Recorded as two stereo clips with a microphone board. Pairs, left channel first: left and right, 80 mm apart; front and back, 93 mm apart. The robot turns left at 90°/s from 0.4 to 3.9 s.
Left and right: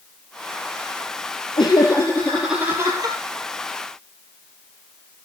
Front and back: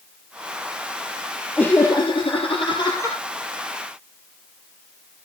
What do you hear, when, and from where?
1.6 s laughter: 75° left, 2.5 m; by 3.2 s 70° right, 2.5 m